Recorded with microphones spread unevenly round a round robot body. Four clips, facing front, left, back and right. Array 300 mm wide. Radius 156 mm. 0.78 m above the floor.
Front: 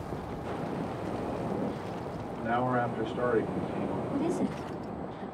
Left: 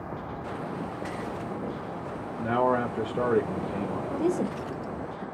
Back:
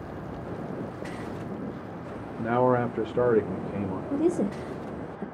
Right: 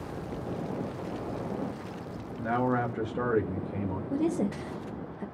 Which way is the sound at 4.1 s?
Straight behind.